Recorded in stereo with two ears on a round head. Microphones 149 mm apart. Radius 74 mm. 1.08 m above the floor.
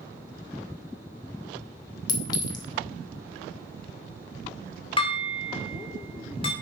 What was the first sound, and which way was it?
A clink, 25° left (ahead or behind).